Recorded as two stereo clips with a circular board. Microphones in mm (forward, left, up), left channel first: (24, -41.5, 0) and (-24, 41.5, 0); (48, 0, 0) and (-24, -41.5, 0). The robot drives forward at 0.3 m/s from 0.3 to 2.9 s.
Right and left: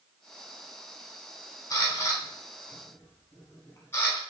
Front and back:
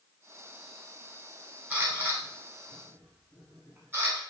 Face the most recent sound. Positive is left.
turn(degrees=-110)